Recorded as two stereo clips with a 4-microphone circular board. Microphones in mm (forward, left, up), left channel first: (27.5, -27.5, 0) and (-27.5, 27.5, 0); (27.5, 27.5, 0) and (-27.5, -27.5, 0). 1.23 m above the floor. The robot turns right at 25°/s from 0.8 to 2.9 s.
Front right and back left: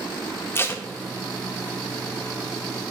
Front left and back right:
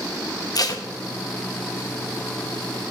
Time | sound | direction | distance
0.6 | tape being pulled | 15° left | 0.8 m